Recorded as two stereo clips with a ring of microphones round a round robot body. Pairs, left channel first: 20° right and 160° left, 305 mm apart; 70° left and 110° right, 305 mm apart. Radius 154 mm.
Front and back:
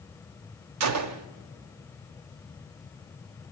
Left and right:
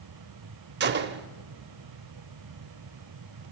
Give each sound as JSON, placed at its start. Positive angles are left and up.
{"t": 0.8, "sound": "a gunshot", "azimuth_deg": -170, "distance_m": 0.5}